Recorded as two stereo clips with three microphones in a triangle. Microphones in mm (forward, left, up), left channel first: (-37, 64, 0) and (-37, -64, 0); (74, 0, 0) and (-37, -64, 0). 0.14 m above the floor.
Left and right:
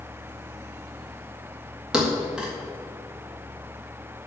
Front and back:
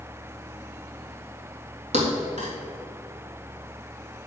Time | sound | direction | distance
1.9 | a thud | 175° right | 3.5 m